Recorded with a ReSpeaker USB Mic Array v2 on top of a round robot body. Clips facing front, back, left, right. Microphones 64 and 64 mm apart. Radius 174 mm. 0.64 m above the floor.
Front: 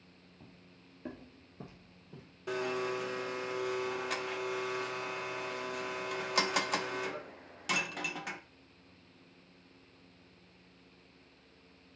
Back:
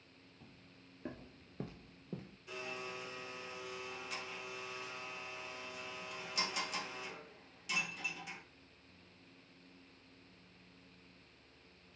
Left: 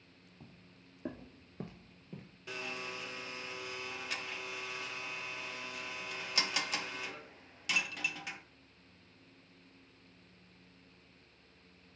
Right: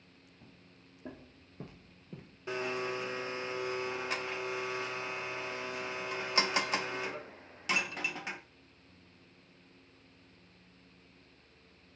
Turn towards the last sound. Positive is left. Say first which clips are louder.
# front 11 dB, right 8 dB
turn(degrees=-30)